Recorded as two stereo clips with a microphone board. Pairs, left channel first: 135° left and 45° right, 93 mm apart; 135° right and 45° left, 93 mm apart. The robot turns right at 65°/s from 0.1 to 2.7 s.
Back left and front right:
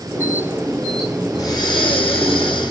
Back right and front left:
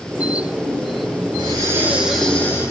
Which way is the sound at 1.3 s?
80° left.